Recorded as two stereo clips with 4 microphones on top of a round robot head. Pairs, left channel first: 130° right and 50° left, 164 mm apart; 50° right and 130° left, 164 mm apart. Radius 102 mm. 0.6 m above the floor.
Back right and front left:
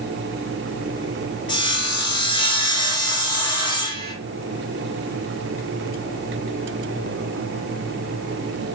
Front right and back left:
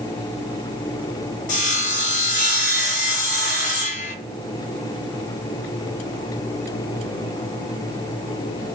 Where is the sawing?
75° right, 0.9 m.